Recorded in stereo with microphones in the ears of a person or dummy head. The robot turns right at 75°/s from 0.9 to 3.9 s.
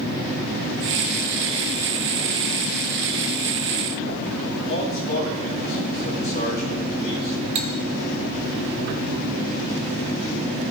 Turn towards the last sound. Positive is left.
turn(degrees=-35)  # may be behind; listen again after turning